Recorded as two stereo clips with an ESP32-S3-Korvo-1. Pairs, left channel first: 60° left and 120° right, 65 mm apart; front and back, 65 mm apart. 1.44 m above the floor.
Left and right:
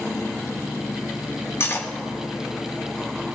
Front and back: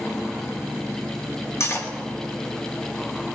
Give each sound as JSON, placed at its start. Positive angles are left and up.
{"t": 1.6, "sound": "cutlery clinking", "azimuth_deg": 25, "distance_m": 1.2}